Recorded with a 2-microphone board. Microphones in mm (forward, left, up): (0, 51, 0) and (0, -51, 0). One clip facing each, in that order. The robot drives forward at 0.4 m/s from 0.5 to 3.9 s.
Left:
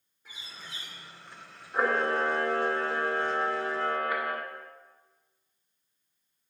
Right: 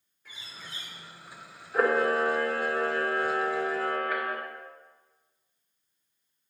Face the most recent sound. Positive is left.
turn(degrees=20)  # may be behind; listen again after turning